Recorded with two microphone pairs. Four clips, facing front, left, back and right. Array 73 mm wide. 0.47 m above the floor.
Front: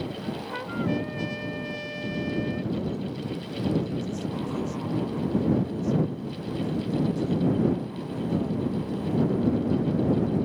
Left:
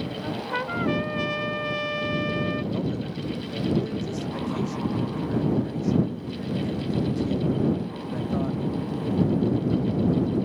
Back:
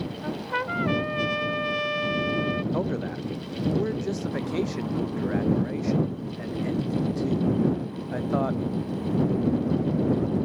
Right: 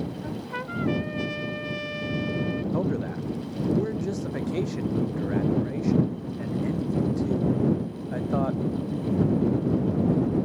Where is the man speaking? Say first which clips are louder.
Right 2 dB, back 3 dB; 160° right.